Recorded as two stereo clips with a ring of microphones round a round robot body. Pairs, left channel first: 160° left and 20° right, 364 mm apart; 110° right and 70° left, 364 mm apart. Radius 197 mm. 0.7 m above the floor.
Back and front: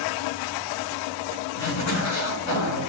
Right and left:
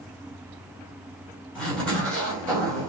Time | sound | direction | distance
1.6 | a zipper | 160° left | 2.5 m